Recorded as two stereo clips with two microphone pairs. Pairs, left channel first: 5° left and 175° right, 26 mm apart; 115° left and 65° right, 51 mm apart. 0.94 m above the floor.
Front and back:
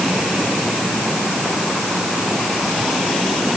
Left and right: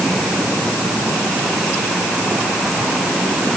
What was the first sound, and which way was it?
Only background noise.